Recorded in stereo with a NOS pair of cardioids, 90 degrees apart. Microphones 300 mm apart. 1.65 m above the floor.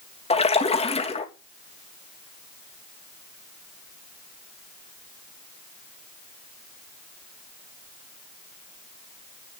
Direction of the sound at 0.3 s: 20° left.